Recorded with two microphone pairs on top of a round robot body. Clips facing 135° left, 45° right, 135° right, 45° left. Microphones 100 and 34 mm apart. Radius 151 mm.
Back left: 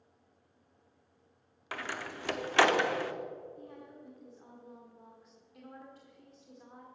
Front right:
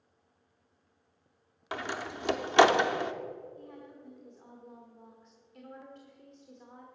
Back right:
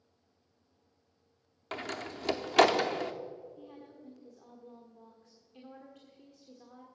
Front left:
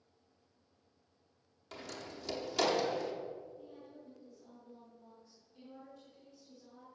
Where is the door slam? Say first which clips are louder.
Front right 4 dB, back right 8 dB; 115° right, 0.8 m.